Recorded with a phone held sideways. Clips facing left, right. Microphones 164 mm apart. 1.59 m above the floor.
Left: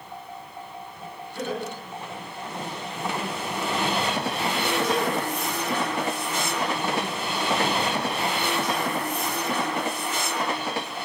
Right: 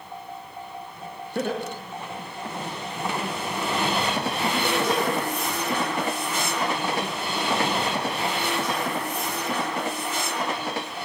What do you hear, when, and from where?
1.4 s laughter: 65° right (ahead or behind), 1.6 m; by 5.2 s 60° right (ahead or behind), 4 m